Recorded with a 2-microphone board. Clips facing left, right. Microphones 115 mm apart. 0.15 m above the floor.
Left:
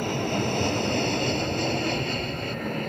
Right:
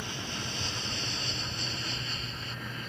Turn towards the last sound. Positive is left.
turn(degrees=60)  # may be behind; listen again after turning